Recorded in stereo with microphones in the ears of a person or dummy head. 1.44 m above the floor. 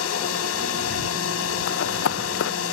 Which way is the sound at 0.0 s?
85° left.